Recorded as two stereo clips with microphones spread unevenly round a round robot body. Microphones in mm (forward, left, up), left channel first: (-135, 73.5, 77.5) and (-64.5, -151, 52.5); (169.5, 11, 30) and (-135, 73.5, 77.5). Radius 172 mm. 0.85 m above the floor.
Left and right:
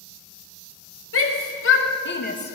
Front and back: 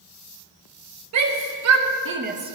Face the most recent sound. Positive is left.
turn(degrees=80)